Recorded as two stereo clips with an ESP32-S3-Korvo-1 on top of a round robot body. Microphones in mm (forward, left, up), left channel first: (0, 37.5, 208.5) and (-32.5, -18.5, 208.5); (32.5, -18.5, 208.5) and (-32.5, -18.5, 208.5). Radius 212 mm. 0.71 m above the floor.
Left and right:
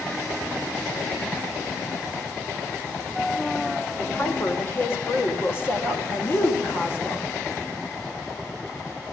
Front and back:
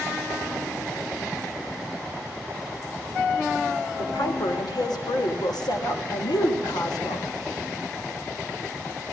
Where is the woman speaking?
5° left, 4 m.